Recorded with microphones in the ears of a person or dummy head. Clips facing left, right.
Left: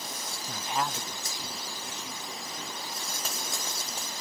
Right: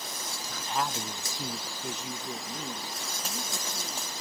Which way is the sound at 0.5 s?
35° left (ahead or behind).